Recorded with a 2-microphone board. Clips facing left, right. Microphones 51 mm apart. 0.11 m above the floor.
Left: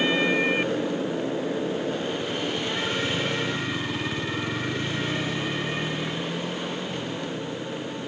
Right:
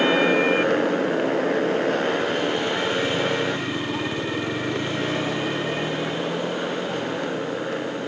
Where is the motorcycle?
60° right (ahead or behind); by 8.1 s 70° right (ahead or behind).